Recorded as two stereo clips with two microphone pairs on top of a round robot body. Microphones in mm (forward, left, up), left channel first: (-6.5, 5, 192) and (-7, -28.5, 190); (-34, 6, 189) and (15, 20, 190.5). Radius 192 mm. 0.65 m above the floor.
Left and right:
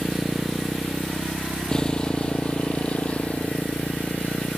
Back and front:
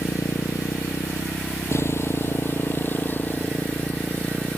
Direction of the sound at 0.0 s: 175° right.